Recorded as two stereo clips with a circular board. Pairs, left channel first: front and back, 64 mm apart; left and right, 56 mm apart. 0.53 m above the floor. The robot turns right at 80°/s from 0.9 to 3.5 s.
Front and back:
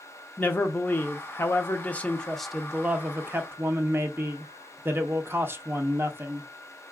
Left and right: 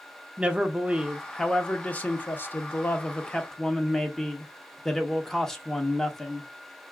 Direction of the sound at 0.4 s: 40° right.